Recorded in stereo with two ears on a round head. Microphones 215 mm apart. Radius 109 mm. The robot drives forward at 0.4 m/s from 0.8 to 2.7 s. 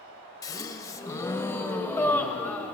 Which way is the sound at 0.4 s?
15° left (ahead or behind).